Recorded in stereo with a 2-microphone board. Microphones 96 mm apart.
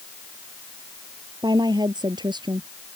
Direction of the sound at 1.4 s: 50° right (ahead or behind).